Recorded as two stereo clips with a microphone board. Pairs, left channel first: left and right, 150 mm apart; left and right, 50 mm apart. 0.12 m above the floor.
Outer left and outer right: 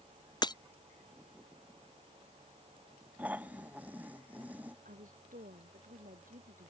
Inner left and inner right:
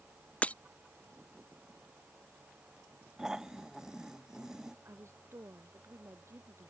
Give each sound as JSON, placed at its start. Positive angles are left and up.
{"t": 0.4, "sound": "breaking glass", "side_deg": 30}
{"t": 3.2, "sound": "snoring", "side_deg": -10}
{"t": 4.8, "sound": "a woman speaking", "side_deg": -65}